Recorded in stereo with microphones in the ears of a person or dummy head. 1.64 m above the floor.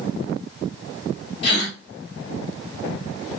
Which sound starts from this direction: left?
A gasp, at 1.4 s.